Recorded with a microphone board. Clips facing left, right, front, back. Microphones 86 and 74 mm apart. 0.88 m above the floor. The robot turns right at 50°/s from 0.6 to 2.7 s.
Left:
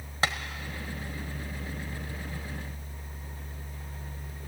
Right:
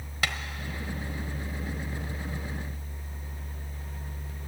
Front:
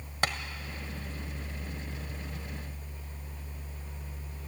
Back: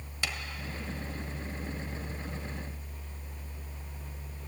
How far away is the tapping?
About 1.3 m.